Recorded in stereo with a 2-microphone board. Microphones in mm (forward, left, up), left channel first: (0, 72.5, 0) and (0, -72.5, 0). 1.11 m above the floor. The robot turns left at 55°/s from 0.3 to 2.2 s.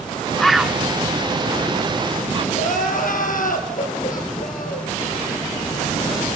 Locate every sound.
0.4 s a bird: 5° left (ahead or behind), 0.8 m; by 2.5 s 35° right (ahead or behind), 0.8 m
2.5 s crying: 70° left (ahead or behind), 5 m